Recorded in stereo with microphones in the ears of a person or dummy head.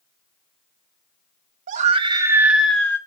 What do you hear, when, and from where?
1.7 s a scream: 45° right (ahead or behind), 1.2 m; by 3.0 s 10° left (ahead or behind), 1.7 m